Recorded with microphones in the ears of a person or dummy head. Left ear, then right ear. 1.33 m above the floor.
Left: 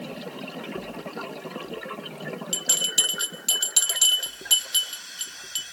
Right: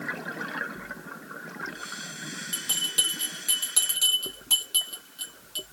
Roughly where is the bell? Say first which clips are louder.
Left 4 dB; left.